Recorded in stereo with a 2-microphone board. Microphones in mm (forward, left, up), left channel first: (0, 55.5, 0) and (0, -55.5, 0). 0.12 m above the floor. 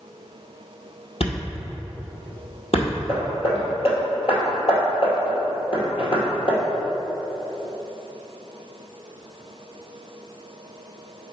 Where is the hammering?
60° left (ahead or behind), 2 m.